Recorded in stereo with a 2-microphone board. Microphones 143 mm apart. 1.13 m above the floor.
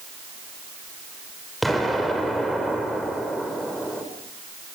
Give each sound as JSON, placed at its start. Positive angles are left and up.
{"t": 1.6, "sound": "an explosion", "side_deg": 0, "distance_m": 4.5}